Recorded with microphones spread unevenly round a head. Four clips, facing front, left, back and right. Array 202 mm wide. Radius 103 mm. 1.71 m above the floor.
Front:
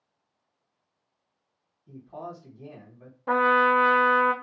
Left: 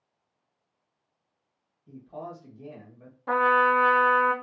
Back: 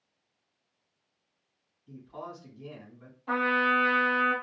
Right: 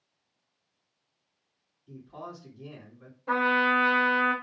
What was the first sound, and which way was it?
A man speaking, 55° left.